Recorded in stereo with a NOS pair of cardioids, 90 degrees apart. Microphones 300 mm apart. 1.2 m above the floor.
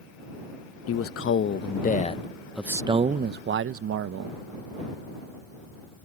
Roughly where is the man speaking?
Ahead left.